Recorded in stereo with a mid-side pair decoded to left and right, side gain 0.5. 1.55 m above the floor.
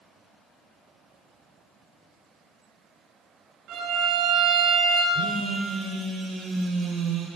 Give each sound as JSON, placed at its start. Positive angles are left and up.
{"t": 3.7, "sound": "a violin", "azimuth_deg": -70, "distance_m": 3.5}
{"t": 5.1, "sound": "a phone buzzing", "azimuth_deg": -60, "distance_m": 3.5}